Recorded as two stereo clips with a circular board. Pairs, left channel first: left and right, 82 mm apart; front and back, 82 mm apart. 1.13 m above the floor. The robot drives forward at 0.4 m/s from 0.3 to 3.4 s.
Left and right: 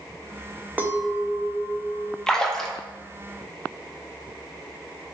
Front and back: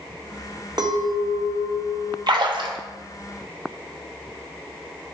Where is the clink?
155° right, 0.6 m; by 2.2 s 170° right, 1.1 m.